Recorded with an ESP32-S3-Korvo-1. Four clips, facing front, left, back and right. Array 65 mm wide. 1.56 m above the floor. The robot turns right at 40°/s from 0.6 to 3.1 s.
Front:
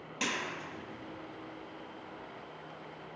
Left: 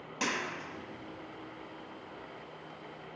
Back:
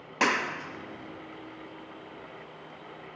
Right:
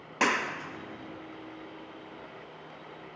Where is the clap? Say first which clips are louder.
Right 7 dB, back 9 dB; 140° right, 1.5 m; by 1.2 s 120° right, 1.5 m.